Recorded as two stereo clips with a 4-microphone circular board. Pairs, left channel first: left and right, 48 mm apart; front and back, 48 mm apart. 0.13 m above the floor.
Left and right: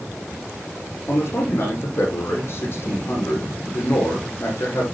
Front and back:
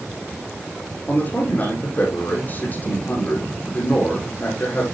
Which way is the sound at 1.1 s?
55° left.